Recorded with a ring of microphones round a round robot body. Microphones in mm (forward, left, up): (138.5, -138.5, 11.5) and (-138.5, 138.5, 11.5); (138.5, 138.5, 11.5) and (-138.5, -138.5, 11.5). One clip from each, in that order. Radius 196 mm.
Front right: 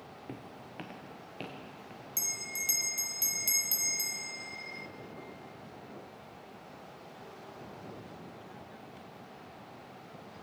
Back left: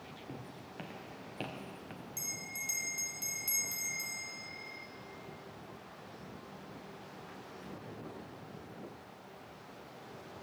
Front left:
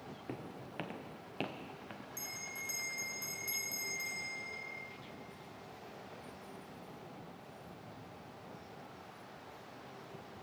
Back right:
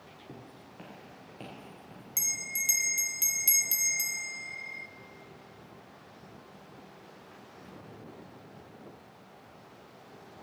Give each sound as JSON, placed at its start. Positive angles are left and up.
{"t": 0.3, "sound": "footsteps", "azimuth_deg": 15, "distance_m": 1.4}
{"t": 2.2, "sound": "a bell", "azimuth_deg": -110, "distance_m": 0.5}